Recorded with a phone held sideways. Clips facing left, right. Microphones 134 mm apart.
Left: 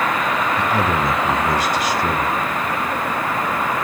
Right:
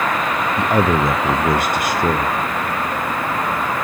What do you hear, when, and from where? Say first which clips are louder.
0.6 s a man speaking: right 6 dB; 55° right (ahead or behind), 0.7 m